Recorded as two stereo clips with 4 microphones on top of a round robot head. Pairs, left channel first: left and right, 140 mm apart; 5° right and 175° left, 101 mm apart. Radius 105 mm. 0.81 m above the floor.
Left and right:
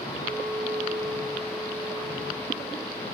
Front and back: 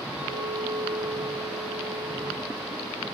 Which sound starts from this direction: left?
A clink, at 0.2 s.